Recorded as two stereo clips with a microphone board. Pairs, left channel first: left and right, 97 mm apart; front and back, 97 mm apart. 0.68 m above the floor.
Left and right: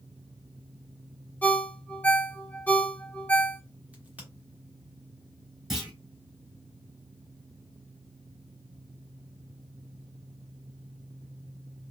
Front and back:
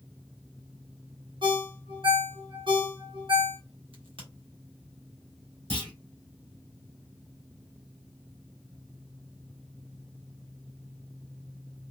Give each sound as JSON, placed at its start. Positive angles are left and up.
{"t": 1.4, "sound": "a ringtone", "azimuth_deg": 165, "distance_m": 0.9}
{"t": 3.9, "sound": "a crack", "azimuth_deg": -165, "distance_m": 1.2}
{"t": 5.7, "sound": "a clunk", "azimuth_deg": -175, "distance_m": 2.5}